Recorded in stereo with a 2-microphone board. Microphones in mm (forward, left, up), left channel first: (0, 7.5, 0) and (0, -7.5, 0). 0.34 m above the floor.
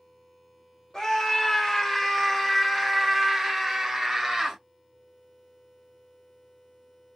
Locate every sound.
0.9 s a scream: 20° left (ahead or behind), 1.5 m; by 4.6 s 45° right (ahead or behind), 1.8 m